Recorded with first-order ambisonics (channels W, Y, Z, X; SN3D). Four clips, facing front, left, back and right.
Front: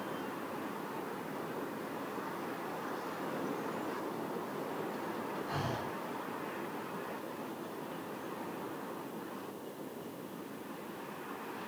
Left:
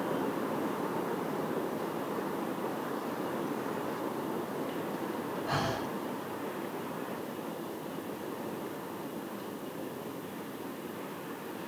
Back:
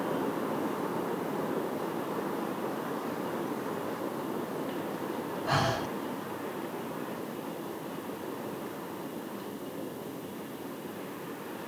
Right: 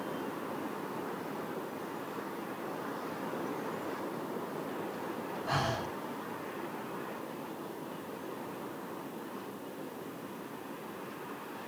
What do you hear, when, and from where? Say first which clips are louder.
5.5 s breathing: right 1 dB, back 12 dB; straight behind, 1.7 m